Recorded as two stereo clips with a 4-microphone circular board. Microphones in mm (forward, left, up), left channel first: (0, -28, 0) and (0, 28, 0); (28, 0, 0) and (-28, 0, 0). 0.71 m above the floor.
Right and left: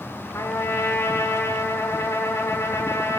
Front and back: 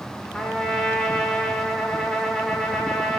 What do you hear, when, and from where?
0.3 s a trumpet: 90° right, 2.5 m